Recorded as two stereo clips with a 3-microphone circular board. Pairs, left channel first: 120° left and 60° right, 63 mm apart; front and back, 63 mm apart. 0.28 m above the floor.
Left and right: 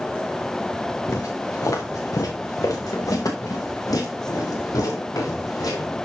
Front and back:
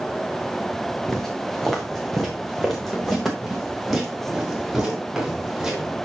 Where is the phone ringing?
No phone ringing in this recording.